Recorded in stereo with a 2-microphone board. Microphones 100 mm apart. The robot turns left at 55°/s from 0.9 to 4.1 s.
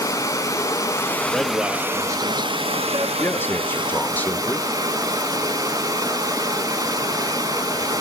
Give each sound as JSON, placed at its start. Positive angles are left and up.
{"t": 0.0, "sound": "running water", "azimuth_deg": 35, "distance_m": 1.4}
{"t": 1.3, "sound": "a man speaking", "azimuth_deg": 10, "distance_m": 1.5}
{"t": 3.2, "sound": "a man speaking", "side_deg": 20, "distance_m": 0.9}